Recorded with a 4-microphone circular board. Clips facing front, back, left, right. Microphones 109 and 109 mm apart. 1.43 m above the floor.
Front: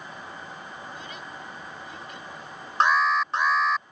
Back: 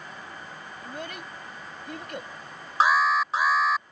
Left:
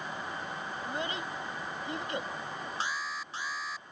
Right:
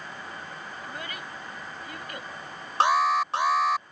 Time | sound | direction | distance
0.8 | a child speaking | 155° left | ?
2.8 | an alarm | 95° right | ?